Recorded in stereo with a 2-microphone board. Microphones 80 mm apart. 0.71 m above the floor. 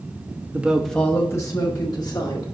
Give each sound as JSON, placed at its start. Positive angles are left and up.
{"t": 0.5, "sound": "a woman speaking", "side_deg": -20, "distance_m": 1.0}